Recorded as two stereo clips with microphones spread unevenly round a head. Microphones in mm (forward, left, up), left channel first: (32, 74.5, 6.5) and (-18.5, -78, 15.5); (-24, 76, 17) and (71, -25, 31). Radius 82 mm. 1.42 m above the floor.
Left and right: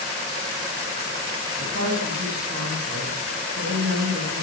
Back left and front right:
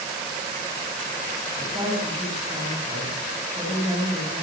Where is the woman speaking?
115° right, 9.5 m.